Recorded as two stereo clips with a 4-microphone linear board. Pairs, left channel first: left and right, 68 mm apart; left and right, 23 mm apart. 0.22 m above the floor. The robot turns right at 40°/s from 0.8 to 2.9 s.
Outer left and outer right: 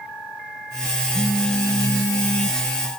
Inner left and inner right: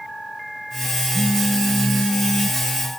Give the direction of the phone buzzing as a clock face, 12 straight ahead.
11 o'clock.